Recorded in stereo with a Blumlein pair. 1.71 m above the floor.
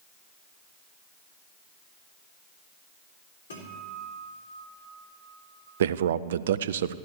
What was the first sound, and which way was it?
A guitar, 65° left.